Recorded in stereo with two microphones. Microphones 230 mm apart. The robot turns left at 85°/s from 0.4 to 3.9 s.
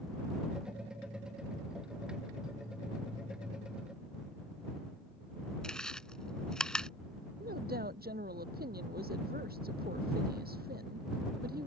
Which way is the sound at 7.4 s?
40° right (ahead or behind).